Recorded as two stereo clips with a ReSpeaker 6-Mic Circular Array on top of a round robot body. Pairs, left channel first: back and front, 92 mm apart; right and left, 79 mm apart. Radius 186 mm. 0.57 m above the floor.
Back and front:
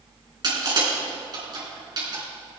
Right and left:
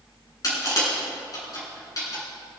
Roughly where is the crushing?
Ahead right.